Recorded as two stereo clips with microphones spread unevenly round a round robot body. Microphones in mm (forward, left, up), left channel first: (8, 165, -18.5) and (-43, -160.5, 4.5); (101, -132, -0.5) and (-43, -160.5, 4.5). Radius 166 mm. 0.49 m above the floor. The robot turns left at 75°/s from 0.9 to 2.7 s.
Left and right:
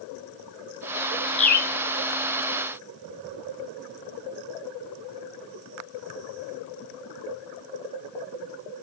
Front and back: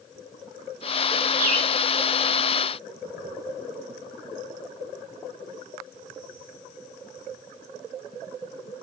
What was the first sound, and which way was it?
A bird, 150° left.